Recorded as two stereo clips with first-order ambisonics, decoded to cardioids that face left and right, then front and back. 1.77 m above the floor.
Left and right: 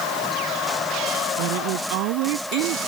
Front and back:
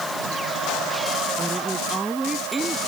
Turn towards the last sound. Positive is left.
turn(degrees=-100)